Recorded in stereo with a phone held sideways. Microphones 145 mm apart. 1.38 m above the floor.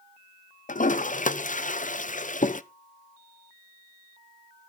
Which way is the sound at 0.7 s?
60° left (ahead or behind).